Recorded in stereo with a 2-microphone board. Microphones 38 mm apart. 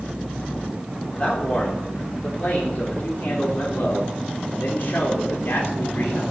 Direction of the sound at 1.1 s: 35° left (ahead or behind).